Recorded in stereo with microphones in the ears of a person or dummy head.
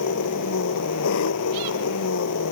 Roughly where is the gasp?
I don't hear a gasp.